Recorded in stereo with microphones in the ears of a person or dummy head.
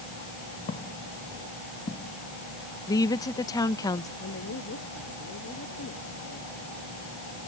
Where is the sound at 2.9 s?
20° left (ahead or behind).